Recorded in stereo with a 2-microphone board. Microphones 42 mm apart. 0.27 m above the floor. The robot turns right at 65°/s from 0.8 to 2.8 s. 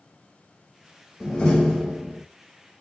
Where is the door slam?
140° left, 0.8 m; by 2.2 s 155° right, 0.8 m.